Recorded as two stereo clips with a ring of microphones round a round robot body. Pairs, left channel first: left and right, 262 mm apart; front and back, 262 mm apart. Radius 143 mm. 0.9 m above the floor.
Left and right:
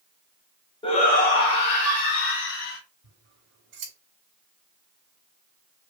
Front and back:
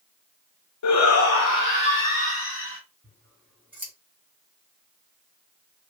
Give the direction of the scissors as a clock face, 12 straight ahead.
3 o'clock.